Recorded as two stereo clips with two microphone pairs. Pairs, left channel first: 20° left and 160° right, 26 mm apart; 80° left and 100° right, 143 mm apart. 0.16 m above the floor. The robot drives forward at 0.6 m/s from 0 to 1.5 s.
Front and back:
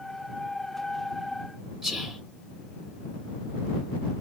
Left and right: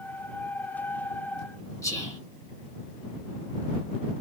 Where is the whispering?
135° left, 2 m.